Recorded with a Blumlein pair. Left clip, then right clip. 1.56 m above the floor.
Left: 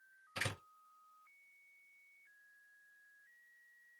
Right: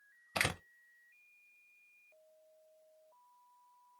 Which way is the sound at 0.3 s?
45° right.